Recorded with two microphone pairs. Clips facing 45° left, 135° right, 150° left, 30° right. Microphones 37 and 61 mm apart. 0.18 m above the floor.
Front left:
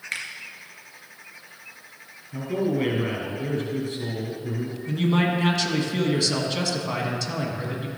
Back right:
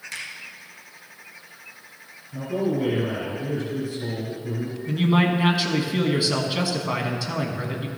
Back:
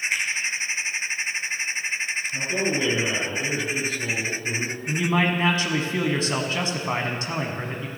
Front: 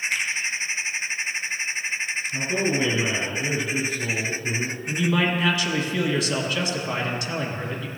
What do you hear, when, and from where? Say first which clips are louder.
0.1 s a finger snap: front left 4 dB, back 1 dB; 75° left, 2.0 m
2.3 s a man speaking: even, front 2 dB; 35° left, 3.5 m
4.9 s a man speaking: back right 2 dB, even; 165° left, 1.2 m